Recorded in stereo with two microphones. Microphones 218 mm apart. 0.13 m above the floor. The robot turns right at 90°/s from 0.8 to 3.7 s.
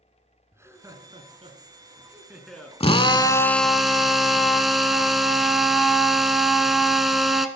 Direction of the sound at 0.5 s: 15° right (ahead or behind).